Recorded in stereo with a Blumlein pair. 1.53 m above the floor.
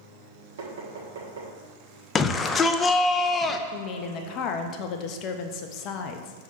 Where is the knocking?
60° right, 1.9 m.